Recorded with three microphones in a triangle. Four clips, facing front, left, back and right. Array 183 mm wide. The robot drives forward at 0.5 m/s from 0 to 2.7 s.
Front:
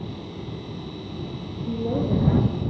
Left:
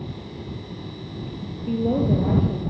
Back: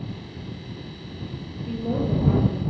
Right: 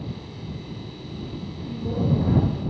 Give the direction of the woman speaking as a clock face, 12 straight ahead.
9 o'clock.